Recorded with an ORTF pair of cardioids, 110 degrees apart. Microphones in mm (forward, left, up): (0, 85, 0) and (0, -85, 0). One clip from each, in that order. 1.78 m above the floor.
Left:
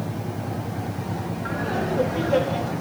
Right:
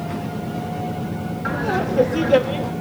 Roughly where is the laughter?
Ahead right.